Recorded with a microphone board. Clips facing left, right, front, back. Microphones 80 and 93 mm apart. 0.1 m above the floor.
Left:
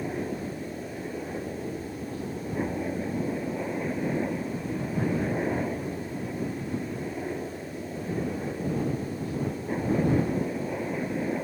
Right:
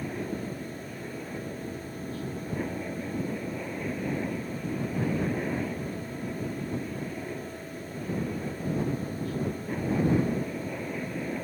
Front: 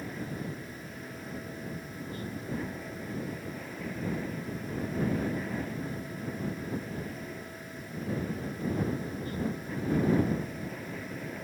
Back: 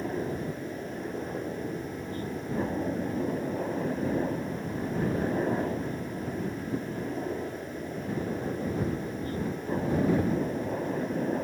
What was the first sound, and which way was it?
A helicopter, 155° left.